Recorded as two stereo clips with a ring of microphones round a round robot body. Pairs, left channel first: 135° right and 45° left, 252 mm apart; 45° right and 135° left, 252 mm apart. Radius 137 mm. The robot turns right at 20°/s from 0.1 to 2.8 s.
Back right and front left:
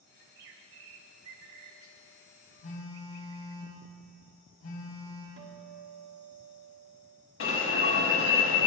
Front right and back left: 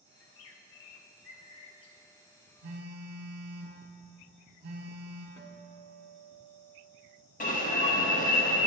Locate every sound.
0.2 s a bird: 10° right, 0.7 m; by 2.0 s 30° left, 0.7 m
2.6 s a phone buzzing: straight behind, 2.5 m; by 5.3 s 175° right, 2.5 m
5.4 s a guitar: 30° left, 1.0 m
7.4 s an alarm: 100° right, 1.2 m